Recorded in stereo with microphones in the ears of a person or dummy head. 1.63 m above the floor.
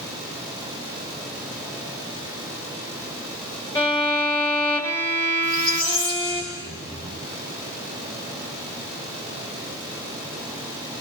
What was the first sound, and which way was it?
A violin, 15° left (ahead or behind).